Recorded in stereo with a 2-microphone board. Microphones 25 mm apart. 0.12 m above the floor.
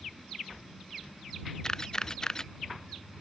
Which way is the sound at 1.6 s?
20° left (ahead or behind).